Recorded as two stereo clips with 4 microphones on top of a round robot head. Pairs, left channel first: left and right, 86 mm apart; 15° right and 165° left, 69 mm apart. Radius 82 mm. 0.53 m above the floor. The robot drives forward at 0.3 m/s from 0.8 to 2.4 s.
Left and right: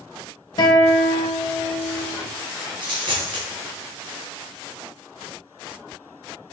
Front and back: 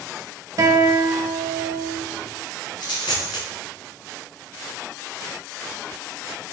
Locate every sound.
0.6 s a guitar: 130° left, 0.5 m; by 2.0 s 150° left, 0.8 m
2.8 s a dropped coin: 50° right, 0.6 m